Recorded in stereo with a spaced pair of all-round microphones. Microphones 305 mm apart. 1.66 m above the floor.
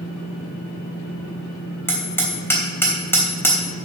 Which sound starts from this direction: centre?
Hammering, at 1.9 s.